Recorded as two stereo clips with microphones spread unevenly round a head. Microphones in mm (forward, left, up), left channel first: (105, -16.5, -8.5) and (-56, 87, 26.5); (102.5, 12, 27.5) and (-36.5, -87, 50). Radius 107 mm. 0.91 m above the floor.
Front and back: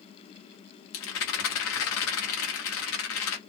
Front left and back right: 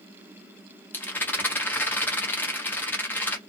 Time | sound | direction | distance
0.9 | a rattle | 45° right | 1.3 m